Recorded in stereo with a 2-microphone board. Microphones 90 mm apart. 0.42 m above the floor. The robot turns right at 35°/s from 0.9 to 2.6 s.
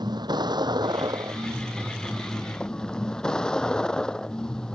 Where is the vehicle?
50° right; by 4.8 s 10° left.